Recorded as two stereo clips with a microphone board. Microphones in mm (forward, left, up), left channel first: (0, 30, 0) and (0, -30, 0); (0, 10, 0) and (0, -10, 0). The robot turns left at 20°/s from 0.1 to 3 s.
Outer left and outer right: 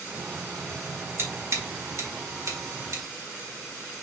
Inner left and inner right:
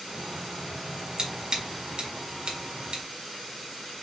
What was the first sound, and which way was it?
Scissors, 45° right (ahead or behind).